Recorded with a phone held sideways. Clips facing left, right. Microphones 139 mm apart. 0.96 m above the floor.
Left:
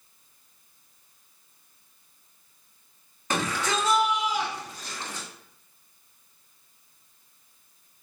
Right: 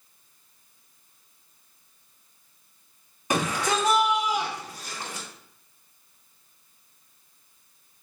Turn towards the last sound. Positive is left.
turn(degrees=-15)  # may be behind; listen again after turning